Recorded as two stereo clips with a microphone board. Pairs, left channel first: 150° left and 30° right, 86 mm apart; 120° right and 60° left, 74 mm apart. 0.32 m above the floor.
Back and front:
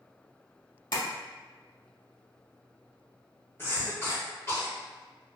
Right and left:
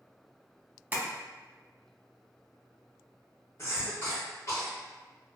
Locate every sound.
0.9 s tapping: 125° left, 0.6 m
3.6 s a cough: 160° right, 1.6 m